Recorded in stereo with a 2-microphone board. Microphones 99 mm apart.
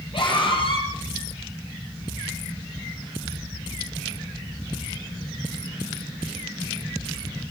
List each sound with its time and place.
0.1 s a scream: 55° left (ahead or behind), 8.5 m